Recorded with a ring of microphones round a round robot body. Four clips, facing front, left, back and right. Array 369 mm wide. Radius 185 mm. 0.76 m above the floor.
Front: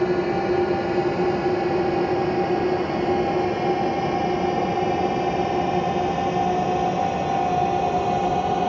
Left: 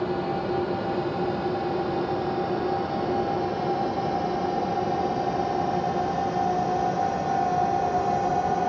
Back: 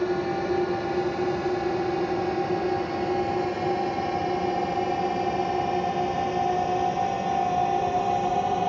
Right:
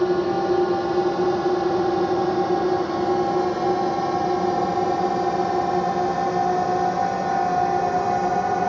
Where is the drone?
65° right; by 8.7 s 60° right.